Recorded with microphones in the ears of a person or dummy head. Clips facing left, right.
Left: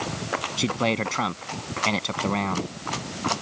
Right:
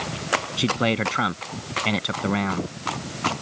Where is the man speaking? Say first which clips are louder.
Right 1 dB; 5° right (ahead or behind).